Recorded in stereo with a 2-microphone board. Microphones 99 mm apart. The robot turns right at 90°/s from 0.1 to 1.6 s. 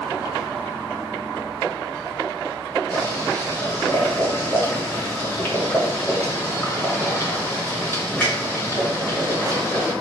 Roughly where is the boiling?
Left.